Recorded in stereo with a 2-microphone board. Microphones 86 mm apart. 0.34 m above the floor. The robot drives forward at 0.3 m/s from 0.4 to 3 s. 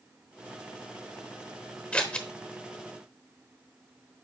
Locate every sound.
1.9 s scissors: 15° left (ahead or behind), 1.0 m